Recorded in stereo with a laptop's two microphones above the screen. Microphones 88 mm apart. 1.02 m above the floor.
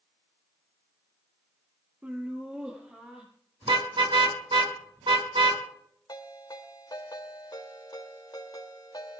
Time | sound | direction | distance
2.0 | laughter | 20° right (ahead or behind) | 0.7 m
3.6 | a car horn | 75° right (ahead or behind) | 5.5 m
6.1 | a ringtone | 55° left (ahead or behind) | 2.5 m